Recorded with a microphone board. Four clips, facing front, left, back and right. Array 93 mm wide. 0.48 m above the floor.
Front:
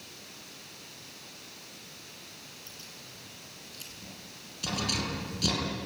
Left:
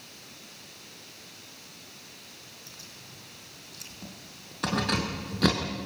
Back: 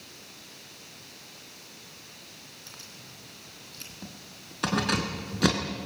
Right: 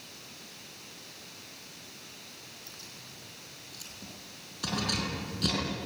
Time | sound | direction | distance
2.7 | keys jangling | 175° left | 3.5 m